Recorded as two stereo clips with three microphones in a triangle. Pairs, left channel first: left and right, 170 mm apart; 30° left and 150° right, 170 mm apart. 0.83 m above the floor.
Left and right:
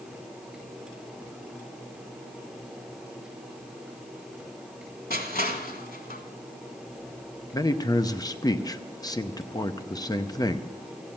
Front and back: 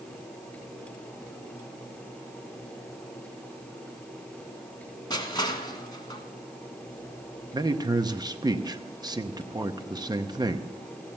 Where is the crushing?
90° left, 1.3 m.